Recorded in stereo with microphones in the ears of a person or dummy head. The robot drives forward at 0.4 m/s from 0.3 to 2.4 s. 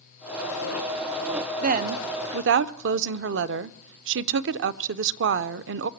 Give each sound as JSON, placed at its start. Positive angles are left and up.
{"t": 1.6, "sound": "a woman speaking", "side_deg": -45, "distance_m": 0.8}